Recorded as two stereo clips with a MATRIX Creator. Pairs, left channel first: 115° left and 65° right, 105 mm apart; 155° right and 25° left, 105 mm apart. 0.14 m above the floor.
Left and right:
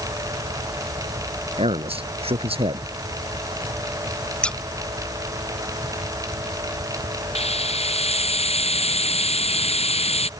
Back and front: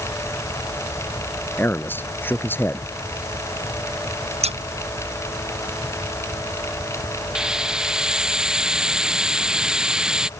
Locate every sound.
1.6 s a man speaking: 85° right
4.4 s scissors: 30° left
7.3 s a hiss: 105° left